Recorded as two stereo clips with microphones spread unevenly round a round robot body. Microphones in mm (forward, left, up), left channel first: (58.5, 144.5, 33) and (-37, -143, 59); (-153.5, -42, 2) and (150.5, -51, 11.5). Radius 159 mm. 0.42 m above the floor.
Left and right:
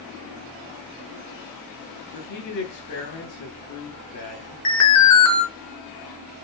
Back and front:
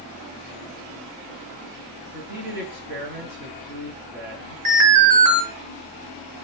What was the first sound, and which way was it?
A man speaking, 60° left.